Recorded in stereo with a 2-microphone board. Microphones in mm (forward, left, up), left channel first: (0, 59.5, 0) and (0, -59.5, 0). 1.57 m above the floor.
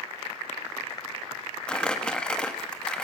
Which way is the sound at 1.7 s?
5° left (ahead or behind).